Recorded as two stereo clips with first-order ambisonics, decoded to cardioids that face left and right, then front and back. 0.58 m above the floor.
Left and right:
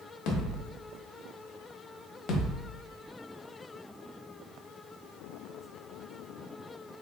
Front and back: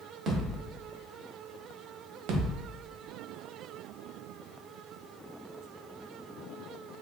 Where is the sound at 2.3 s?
150° left, 0.7 m.